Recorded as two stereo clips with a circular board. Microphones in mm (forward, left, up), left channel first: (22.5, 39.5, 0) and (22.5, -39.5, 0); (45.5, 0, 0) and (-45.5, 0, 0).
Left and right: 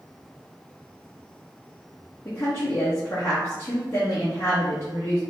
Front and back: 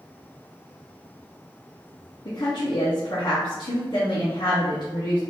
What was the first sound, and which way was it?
A woman speaking, 35° left.